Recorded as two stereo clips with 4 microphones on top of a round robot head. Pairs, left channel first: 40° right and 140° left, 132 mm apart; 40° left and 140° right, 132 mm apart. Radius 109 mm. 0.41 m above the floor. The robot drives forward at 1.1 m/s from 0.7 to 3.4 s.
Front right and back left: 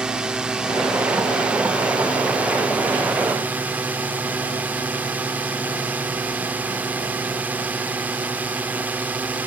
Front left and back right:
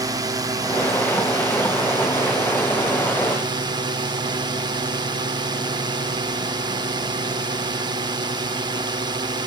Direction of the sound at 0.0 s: 145° right.